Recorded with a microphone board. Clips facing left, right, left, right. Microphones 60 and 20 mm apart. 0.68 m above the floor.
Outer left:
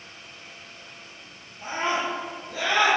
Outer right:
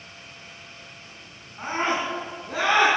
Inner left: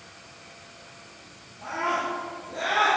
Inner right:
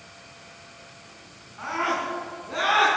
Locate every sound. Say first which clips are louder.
1.6 s a scream: outer right 1 dB, inner right 1 dB; 80° right, 6 m; by 2.9 s 85° right, 6 m